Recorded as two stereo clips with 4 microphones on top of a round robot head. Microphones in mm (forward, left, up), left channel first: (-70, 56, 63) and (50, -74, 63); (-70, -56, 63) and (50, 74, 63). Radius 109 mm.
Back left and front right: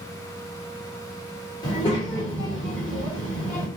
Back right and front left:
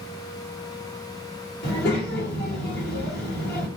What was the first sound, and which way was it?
A child speaking, 160° right.